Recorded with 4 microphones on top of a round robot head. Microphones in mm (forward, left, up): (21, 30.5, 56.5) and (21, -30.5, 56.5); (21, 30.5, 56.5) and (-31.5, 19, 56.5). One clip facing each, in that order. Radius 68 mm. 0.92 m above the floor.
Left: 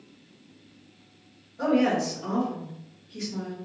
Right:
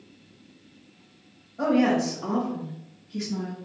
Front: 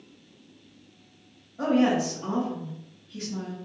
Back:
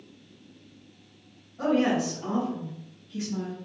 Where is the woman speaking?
60° right, 1.6 m; by 3.6 s 120° right, 1.1 m.